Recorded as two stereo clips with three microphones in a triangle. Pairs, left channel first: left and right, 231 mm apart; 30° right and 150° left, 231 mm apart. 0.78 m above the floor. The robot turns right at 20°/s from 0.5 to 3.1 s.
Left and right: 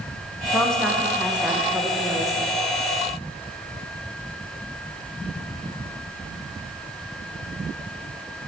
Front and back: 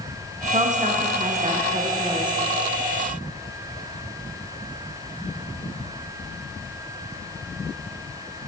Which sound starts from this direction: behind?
A woman speaking, at 0.5 s.